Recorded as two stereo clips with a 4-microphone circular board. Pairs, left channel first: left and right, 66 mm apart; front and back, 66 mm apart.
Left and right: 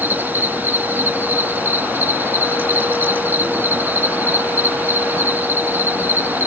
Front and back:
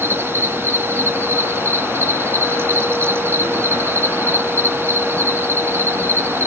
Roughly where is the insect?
Behind right.